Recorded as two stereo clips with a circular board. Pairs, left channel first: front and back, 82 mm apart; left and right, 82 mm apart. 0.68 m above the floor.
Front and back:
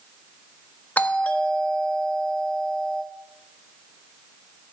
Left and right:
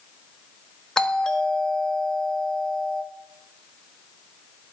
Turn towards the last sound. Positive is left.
turn(degrees=25)